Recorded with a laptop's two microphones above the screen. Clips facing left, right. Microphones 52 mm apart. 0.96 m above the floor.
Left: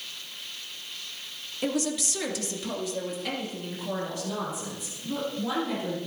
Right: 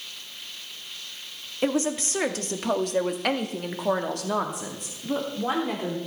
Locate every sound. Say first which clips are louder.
1.6 s a woman speaking: right 4 dB; 30° right (ahead or behind), 1.7 m; by 6.0 s 45° right (ahead or behind), 2.5 m